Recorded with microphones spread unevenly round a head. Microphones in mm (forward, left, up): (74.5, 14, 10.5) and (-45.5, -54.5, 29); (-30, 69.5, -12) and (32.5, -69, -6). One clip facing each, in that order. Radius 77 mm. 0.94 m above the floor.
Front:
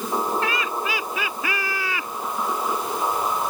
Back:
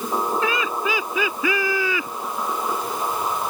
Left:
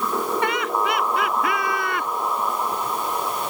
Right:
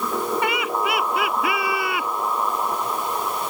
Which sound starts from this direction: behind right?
Laughter, at 0.4 s.